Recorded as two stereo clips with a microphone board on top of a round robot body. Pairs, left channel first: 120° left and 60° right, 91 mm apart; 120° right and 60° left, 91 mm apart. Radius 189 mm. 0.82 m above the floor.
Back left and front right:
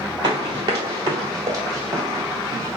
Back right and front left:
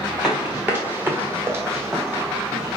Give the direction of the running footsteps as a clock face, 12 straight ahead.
1 o'clock.